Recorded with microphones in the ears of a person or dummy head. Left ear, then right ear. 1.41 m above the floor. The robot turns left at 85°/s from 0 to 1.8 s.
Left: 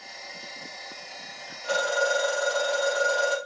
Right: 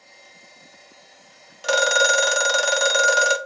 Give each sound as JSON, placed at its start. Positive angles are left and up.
{"t": 1.6, "sound": "a phone ringing", "side_deg": -60, "distance_m": 0.5}